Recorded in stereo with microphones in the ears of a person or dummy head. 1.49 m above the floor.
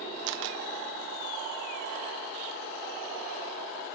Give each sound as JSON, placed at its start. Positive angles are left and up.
{"t": 0.3, "sound": "a camera shutter", "side_deg": -60, "distance_m": 0.5}